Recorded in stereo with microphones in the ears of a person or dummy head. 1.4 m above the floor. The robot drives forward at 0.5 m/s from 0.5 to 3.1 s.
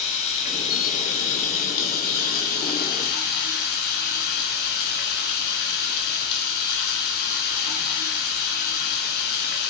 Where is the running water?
40° left (ahead or behind), 3.5 m; by 9.7 s 55° left (ahead or behind), 2.5 m.